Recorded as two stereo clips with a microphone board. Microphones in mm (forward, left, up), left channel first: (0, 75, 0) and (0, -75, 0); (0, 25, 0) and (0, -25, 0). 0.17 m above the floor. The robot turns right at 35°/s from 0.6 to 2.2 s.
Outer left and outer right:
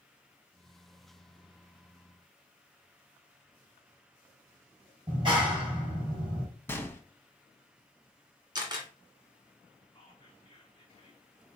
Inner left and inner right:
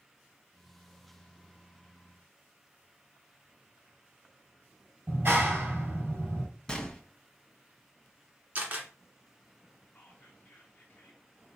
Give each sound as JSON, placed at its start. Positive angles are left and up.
{"t": 5.1, "sound": "a clap", "side_deg": -35, "distance_m": 3.0}
{"t": 6.7, "sound": "a gunshot", "side_deg": 15, "distance_m": 1.0}
{"t": 8.6, "sound": "a camera shutter", "side_deg": -30, "distance_m": 1.6}
{"t": 9.9, "sound": "whispering", "side_deg": 35, "distance_m": 1.2}